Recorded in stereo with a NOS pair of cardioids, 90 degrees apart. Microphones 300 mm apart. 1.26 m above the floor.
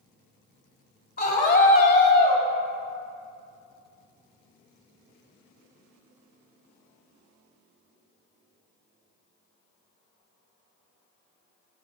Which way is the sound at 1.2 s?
30° left.